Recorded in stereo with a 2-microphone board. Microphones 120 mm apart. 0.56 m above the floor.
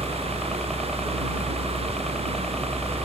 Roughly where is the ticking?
No ticking in this recording.